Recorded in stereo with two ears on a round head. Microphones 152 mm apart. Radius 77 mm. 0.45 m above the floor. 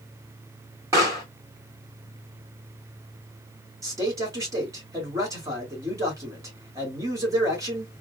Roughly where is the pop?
Centre.